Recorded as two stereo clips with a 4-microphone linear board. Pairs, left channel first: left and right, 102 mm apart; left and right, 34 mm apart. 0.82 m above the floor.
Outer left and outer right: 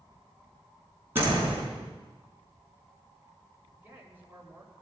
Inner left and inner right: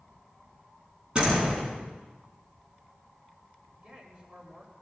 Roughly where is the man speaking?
Right.